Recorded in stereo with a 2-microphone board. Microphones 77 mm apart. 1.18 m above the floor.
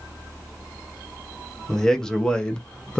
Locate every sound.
1.7 s a man speaking: 5° left (ahead or behind), 0.8 m; by 3.0 s 10° left (ahead or behind), 0.6 m